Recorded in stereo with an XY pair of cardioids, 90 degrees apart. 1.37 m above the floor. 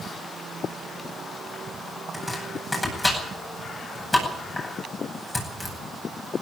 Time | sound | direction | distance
2.1 | chopping | 15° left | 9.5 m